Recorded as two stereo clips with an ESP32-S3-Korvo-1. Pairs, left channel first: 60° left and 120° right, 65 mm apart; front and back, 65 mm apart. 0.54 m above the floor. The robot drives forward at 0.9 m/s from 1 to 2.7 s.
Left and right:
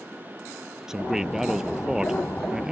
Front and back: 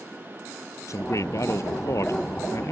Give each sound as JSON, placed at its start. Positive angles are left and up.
{"t": 0.9, "sound": "a man speaking", "azimuth_deg": -35}